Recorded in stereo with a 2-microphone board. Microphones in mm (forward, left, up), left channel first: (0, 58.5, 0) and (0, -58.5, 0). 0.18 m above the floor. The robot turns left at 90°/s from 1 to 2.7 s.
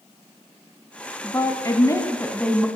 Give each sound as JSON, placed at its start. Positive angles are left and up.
{"t": 1.2, "sound": "a woman speaking", "side_deg": 20, "distance_m": 1.3}